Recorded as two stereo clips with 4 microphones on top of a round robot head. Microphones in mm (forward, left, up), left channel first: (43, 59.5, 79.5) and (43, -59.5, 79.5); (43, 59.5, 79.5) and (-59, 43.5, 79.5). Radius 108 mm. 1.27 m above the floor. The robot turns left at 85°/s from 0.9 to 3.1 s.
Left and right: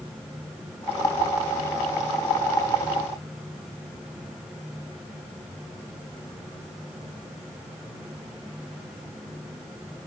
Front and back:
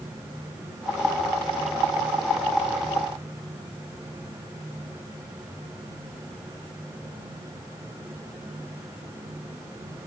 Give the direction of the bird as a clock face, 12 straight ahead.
I don't hear a bird.